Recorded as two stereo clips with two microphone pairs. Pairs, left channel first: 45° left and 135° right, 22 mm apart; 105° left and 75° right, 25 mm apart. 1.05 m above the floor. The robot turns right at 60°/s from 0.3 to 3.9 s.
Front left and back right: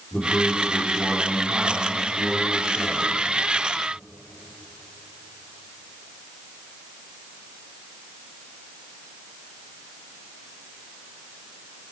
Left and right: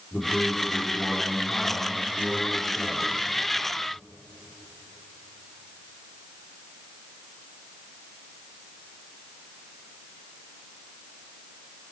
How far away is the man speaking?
About 2.5 m.